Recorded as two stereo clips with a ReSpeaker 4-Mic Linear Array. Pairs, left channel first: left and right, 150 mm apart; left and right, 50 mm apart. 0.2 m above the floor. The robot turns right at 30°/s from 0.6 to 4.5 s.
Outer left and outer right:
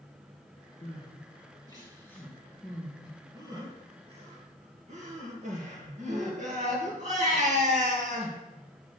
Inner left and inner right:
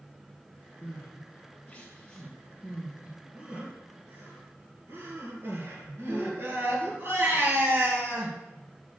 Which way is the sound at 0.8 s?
50° left (ahead or behind).